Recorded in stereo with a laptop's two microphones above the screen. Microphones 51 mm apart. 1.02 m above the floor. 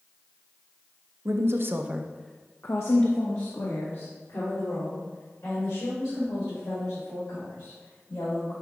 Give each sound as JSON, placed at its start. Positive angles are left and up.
{"t": 1.2, "sound": "a woman speaking", "side_deg": -60, "distance_m": 1.1}